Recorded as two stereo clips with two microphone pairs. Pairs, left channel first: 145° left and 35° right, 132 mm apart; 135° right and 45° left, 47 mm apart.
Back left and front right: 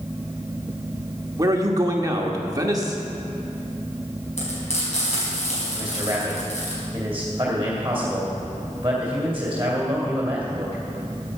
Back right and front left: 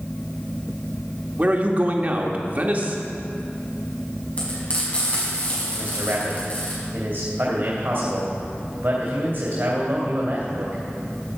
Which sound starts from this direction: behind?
Frying, at 4.4 s.